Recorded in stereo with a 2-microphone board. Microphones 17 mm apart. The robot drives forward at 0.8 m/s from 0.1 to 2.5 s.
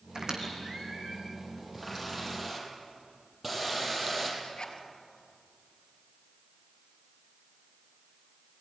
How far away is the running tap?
About 5.5 m.